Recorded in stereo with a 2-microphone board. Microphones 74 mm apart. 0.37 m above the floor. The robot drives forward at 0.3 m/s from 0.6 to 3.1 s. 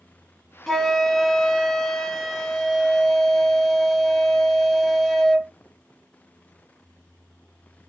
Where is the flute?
5° left (ahead or behind), 0.6 m; by 5.5 s centre (ahead or behind), 1.4 m.